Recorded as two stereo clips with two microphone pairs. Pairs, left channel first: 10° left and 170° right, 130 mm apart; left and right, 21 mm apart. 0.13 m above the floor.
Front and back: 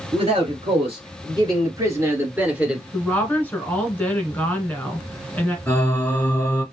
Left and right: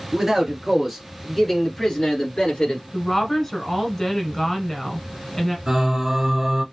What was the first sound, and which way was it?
A man speaking, 160° right.